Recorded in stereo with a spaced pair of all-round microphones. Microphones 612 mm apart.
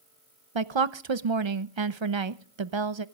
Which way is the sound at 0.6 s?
50° right (ahead or behind).